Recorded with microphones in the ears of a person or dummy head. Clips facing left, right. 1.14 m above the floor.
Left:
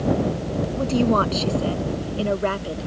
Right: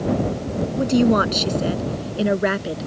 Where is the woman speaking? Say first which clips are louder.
Right 4 dB; 15° right (ahead or behind); by 2.9 s 25° right (ahead or behind).